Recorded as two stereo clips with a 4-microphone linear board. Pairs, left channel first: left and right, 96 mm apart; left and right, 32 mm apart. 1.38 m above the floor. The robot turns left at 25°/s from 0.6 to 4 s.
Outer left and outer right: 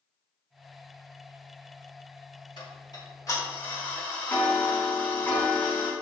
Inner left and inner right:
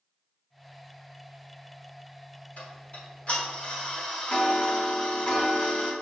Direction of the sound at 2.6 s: 55° left.